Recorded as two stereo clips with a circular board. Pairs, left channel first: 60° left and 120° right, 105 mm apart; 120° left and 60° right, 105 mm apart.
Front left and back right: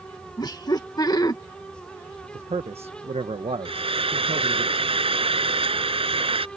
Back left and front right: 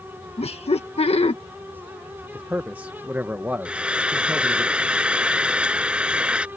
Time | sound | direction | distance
0.4 | laughter | 110° left | ?
2.3 | a man speaking | 135° right | ?
3.6 | frying | 140° right | ?